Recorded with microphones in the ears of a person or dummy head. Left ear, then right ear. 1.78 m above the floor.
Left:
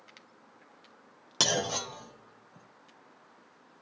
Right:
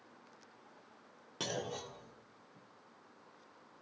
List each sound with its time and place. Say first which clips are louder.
1.4 s a clunk: left 12 dB; 50° left (ahead or behind), 0.7 m